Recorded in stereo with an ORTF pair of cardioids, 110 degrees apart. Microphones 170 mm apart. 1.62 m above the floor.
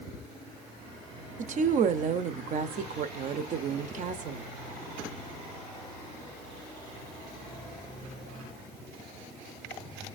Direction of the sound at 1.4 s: 45° right.